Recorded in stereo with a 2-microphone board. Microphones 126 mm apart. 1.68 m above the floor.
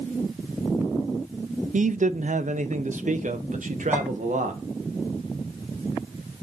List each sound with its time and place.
1.7 s a man speaking: 85° right, 0.6 m
3.9 s a clink: 20° right (ahead or behind), 7 m